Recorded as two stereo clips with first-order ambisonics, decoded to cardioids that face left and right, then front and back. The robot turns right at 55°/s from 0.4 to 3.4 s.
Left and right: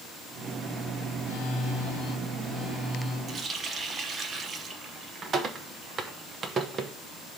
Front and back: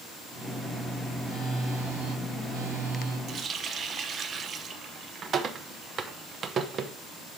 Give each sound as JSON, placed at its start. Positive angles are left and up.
{"t": 1.2, "sound": "a phone buzzing", "azimuth_deg": 90, "distance_m": 2.0}
{"t": 3.3, "sound": "a running tap", "azimuth_deg": -145, "distance_m": 0.7}